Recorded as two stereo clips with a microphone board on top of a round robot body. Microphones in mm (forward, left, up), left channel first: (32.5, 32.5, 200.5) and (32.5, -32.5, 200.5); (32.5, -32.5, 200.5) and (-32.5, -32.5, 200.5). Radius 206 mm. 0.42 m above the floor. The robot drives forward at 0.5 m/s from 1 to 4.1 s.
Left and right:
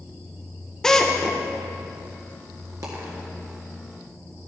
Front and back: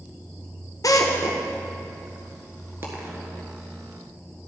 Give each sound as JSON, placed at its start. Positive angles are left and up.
{"t": 0.8, "sound": "a drill", "azimuth_deg": 10, "distance_m": 1.3}
{"t": 2.8, "sound": "a dropped coin", "azimuth_deg": -125, "distance_m": 1.7}